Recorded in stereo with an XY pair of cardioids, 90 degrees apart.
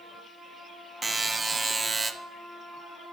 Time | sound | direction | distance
1.0 | a buzzer | 30° right | 0.5 m